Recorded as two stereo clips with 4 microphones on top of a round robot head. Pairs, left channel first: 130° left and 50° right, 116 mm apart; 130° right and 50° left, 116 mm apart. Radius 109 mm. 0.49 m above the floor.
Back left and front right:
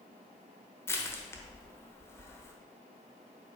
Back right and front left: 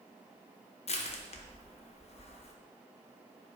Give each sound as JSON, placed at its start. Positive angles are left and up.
{"t": 0.9, "sound": "crushing", "azimuth_deg": -160, "distance_m": 1.1}